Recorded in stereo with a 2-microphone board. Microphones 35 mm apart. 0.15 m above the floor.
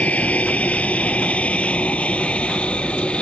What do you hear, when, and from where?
0.0 s an aircraft: 45° left (ahead or behind); by 3.2 s 35° left (ahead or behind)